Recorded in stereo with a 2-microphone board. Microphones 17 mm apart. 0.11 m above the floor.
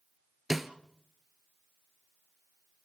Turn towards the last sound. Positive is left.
turn(degrees=-20)  # may be behind; listen again after turning